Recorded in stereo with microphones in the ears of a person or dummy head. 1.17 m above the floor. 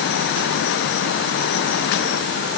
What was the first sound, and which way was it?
Only background noise.